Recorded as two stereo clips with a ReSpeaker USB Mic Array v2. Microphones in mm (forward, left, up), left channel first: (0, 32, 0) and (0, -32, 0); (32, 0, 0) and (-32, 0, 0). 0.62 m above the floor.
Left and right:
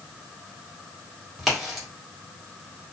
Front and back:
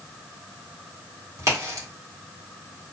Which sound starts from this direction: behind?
A crack, at 1.4 s.